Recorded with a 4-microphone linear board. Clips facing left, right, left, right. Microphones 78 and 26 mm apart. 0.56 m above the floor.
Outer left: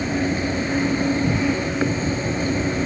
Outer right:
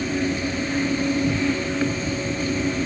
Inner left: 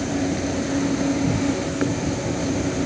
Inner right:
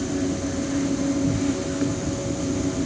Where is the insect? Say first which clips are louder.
Outer left 2 dB, inner left 2 dB; 30° left (ahead or behind).